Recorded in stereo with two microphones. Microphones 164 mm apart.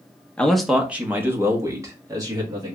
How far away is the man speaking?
About 0.6 m.